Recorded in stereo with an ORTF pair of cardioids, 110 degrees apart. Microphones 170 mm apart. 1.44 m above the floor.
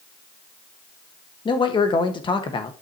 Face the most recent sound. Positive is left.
turn(degrees=30)